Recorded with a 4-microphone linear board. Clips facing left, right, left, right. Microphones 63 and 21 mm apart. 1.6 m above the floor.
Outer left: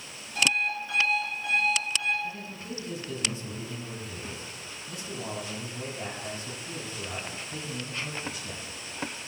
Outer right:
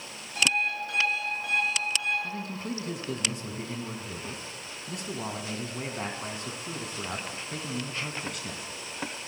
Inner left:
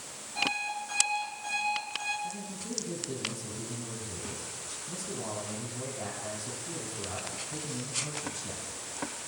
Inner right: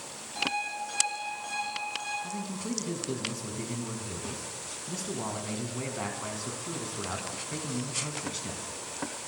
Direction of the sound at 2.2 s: 65° right (ahead or behind).